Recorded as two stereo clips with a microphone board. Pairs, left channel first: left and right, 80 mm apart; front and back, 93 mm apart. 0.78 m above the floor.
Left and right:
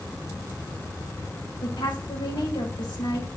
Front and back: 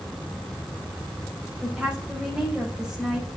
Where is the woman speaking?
100° left, 4.5 m.